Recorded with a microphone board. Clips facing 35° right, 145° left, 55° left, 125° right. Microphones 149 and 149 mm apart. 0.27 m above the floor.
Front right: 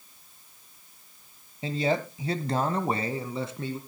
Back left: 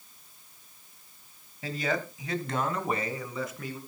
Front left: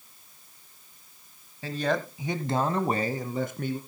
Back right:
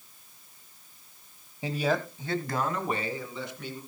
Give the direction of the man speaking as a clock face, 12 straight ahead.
2 o'clock.